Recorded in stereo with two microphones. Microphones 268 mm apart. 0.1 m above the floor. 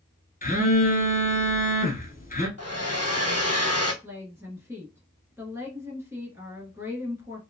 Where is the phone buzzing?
35° left (ahead or behind), 0.8 m.